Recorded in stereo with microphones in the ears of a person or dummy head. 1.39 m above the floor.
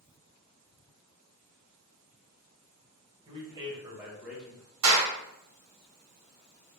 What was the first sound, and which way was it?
A man speaking, 25° right (ahead or behind).